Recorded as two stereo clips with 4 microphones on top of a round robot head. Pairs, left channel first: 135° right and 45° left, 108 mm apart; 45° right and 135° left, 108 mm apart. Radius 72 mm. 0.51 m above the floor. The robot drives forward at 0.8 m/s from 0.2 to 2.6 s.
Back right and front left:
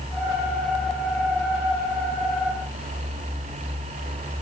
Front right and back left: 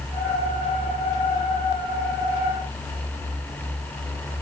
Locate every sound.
Only background noise.